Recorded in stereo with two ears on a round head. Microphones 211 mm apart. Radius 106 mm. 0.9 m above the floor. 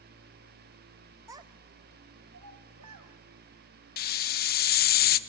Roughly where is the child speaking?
Centre.